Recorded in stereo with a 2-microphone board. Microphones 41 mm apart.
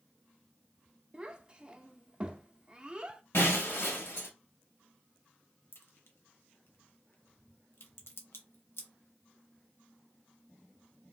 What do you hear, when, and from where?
1.1 s a child speaking: 25° right (ahead or behind), 0.6 m
3.3 s breaking glass: 70° left (ahead or behind), 1.2 m
5.7 s a crack: 75° left (ahead or behind), 0.8 m